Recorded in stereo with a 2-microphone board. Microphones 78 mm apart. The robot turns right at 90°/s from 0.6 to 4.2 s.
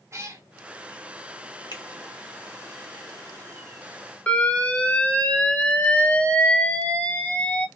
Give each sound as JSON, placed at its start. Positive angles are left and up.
{"t": 0.1, "sound": "a cat meowing", "side_deg": -35, "distance_m": 0.6}
{"t": 1.7, "sound": "a finger snap", "side_deg": 65, "distance_m": 1.0}
{"t": 4.3, "sound": "an alarm", "side_deg": 15, "distance_m": 0.5}